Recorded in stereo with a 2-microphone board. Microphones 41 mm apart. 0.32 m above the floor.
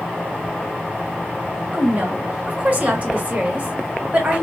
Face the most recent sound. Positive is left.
turn(degrees=-40)  # may be behind; listen again after turning